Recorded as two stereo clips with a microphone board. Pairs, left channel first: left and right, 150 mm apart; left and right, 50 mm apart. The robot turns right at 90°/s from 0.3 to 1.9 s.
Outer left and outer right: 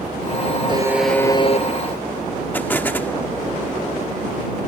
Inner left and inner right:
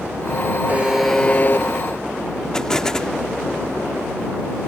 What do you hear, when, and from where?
0.7 s a buzzer: 30° right; by 1.7 s 55° left
2.5 s an explosion: 10° left (ahead or behind)